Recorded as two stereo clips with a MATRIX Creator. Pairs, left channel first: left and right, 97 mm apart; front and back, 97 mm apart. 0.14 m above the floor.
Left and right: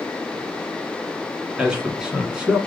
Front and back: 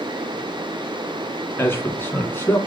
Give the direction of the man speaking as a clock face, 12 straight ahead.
1 o'clock.